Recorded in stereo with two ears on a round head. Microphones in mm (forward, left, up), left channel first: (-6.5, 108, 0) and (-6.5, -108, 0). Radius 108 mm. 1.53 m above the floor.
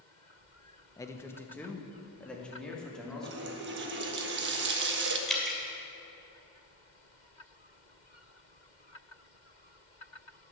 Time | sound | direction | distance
1.0 | a man speaking | 15° left (ahead or behind) | 0.9 m
3.2 | a running tap | 45° right (ahead or behind) | 1.4 m
5.3 | dripping | centre (ahead or behind) | 2 m